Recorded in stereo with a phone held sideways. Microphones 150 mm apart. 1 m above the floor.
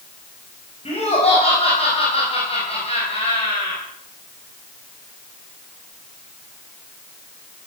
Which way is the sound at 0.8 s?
40° left (ahead or behind).